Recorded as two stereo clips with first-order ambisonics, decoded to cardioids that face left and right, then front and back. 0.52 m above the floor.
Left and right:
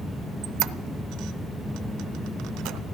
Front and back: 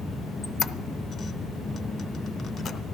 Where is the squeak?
60° right, 0.6 m.